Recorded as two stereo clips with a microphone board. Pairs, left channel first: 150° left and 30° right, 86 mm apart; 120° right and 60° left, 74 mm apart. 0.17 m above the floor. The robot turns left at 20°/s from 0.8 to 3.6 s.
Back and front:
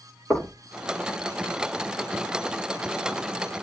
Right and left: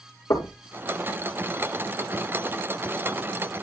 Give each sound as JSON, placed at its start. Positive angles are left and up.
{"t": 0.3, "sound": "knocking", "azimuth_deg": -140, "distance_m": 3.0}